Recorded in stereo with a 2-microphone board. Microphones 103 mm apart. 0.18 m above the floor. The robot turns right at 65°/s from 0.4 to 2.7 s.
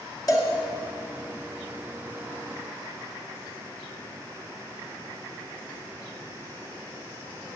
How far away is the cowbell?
About 2.5 m.